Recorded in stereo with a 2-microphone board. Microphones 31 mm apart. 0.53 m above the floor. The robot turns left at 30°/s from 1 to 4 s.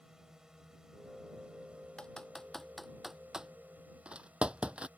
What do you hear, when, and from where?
0.0 s a drone: 20° right; by 5.0 s 110° right
2.0 s typing on a keyboard: 25° left (ahead or behind); by 4.9 s 35° right (ahead or behind)